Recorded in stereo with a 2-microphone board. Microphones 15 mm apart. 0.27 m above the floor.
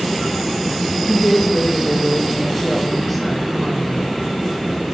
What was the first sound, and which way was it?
A woman speaking, centre (ahead or behind).